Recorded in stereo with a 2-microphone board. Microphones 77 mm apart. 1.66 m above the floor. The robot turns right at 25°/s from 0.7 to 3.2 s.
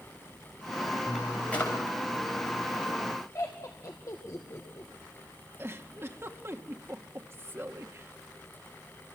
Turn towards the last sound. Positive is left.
turn(degrees=-35)  # may be behind; listen again after turning